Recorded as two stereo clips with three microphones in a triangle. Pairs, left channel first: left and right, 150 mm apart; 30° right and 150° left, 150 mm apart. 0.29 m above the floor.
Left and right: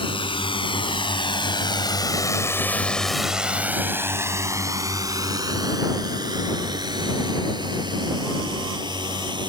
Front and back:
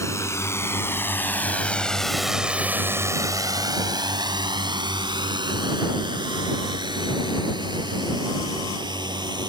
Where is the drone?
40° left; by 9.5 s 150° right.